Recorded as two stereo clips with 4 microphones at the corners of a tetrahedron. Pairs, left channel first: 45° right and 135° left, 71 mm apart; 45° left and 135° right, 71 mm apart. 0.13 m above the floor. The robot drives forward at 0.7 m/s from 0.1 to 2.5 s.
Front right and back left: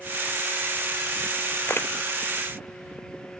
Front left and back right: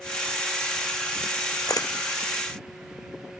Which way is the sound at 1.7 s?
10° left.